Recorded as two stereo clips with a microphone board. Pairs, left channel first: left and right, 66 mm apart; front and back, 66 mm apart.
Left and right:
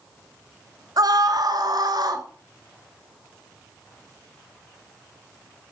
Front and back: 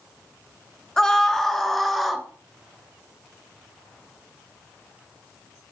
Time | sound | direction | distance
1.0 | a scream | 80° right | 3 m